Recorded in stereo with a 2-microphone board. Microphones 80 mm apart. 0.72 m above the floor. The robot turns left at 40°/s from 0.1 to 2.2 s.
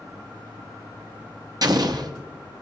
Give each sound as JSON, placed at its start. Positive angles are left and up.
{"t": 1.6, "sound": "an explosion", "side_deg": -55, "distance_m": 0.8}